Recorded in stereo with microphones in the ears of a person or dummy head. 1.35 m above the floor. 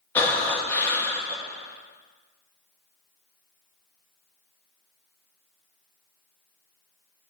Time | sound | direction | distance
0.1 | breathing | 10° left (ahead or behind) | 0.8 m